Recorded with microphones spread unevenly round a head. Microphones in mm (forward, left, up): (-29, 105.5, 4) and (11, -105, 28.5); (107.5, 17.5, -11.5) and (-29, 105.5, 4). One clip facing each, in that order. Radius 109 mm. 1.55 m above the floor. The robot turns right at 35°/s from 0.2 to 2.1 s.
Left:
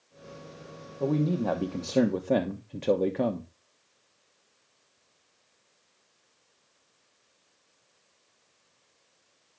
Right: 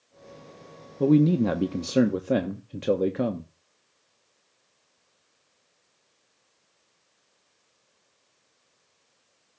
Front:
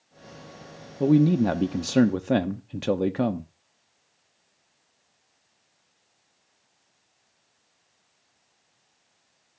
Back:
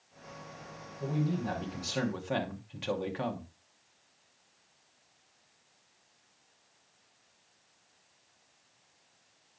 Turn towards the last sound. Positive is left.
turn(degrees=-5)